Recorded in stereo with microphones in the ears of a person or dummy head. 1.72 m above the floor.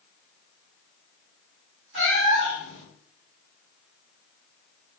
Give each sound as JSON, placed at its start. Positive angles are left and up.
{"t": 1.9, "sound": "a cat meowing", "side_deg": -45, "distance_m": 1.4}